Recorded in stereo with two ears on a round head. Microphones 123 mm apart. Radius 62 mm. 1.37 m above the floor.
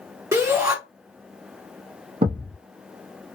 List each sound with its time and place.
0.3 s a shout: 20° right (ahead or behind), 0.7 m
2.2 s a thud: 40° right (ahead or behind), 0.8 m